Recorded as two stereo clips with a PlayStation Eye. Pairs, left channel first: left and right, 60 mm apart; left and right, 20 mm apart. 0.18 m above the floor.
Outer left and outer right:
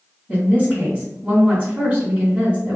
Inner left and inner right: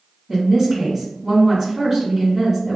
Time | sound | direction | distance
0.3 | a woman speaking | 20° right (ahead or behind) | 1.7 m